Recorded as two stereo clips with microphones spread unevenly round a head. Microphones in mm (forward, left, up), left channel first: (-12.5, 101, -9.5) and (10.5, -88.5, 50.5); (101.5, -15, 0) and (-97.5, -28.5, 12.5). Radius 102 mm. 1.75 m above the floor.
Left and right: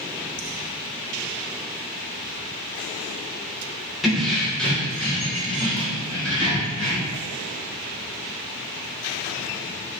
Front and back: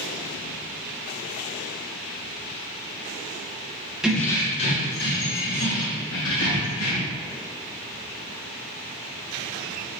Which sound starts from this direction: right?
Keys jangling, at 4.0 s.